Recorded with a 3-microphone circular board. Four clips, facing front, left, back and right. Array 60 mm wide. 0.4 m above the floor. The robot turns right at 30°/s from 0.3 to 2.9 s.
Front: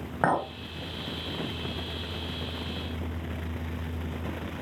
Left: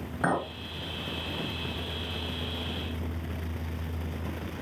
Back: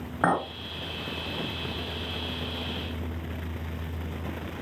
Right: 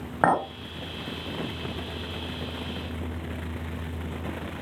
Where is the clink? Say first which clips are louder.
Right 6 dB, back 1 dB; 80° right, 1.3 m; by 0.5 s 75° right, 1.3 m.